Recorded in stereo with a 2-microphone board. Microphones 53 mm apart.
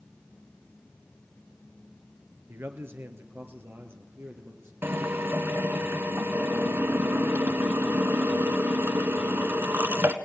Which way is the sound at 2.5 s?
50° right (ahead or behind).